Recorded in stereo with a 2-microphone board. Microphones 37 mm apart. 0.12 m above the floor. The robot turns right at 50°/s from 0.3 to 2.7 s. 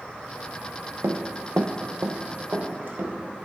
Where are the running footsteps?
80° right, 0.8 m; by 3.1 s 55° right (ahead or behind), 2.0 m.